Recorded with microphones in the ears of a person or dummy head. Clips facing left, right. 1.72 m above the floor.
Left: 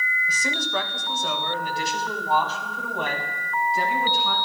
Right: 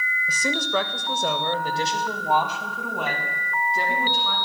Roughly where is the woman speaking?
Right.